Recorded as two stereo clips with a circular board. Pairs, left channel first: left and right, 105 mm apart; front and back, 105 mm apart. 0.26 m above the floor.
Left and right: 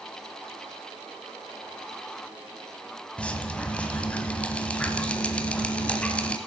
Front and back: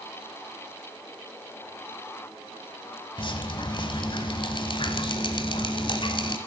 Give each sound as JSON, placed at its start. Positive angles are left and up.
{"t": 3.2, "sound": "dripping", "azimuth_deg": 15, "distance_m": 1.1}